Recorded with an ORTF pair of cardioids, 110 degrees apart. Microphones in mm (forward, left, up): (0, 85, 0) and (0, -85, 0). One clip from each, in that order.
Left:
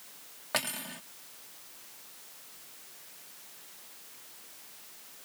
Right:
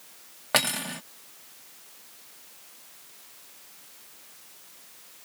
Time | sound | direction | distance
0.5 | cutlery clinking | 45° right | ?